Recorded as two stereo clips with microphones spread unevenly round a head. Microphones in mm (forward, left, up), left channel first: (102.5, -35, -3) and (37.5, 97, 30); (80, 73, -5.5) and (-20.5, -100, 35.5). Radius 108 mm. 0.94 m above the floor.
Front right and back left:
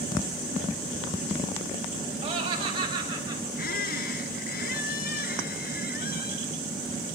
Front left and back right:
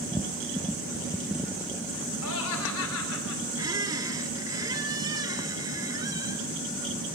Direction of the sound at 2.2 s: 65° left.